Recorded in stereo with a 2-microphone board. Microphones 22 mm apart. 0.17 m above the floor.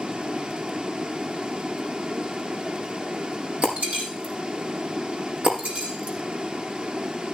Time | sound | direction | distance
0.0 | running water | 50° right (ahead or behind) | 1.3 m
3.6 | breaking glass | 80° right | 5.5 m